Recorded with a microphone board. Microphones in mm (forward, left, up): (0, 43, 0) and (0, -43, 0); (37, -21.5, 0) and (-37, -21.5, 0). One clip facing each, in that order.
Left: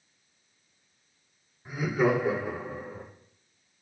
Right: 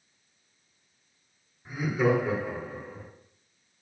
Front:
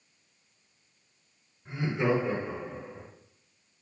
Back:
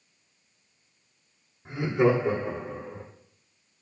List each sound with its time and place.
1.6 s laughter: 170° left, 3.5 m; by 3.1 s 150° left, 1.6 m